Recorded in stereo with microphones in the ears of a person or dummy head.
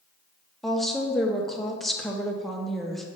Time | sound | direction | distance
0.6 | a woman speaking | 5° right (ahead or behind) | 0.8 m